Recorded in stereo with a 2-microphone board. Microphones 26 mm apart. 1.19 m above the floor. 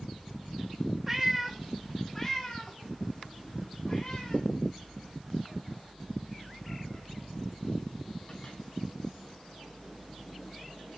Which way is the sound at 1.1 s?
15° right (ahead or behind).